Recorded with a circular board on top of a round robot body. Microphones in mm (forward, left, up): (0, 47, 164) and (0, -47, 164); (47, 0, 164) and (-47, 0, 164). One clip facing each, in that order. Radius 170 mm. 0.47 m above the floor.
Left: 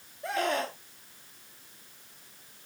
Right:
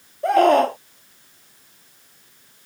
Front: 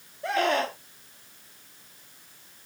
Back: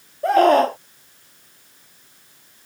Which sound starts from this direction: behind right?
A scream, at 0.2 s.